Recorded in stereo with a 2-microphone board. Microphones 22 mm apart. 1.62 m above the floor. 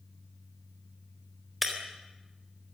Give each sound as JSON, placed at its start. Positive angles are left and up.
{"t": 1.6, "sound": "breaking glass", "side_deg": -5, "distance_m": 3.5}